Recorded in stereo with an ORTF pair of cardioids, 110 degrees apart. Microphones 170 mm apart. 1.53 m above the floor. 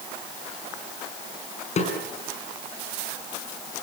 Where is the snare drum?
45° left, 5.5 m.